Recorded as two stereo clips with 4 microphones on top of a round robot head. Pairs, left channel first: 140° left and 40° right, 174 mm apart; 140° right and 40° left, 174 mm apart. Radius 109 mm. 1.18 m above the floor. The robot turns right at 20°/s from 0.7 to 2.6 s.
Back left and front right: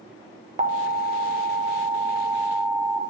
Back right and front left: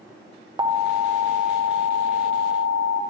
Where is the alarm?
15° right, 0.8 m; by 3.0 s 25° left, 0.8 m.